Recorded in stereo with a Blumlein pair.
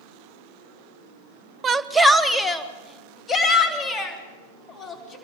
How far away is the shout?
About 0.9 m.